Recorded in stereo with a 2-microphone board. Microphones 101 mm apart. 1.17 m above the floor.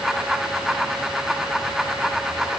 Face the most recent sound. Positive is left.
No sound to turn to.